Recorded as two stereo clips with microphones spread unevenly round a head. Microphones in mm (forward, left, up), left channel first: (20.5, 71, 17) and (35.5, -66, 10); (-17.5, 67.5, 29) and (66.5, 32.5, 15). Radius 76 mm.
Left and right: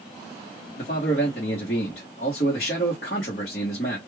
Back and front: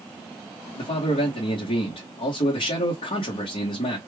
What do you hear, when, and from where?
0.8 s a man speaking: 145° left, 1.1 m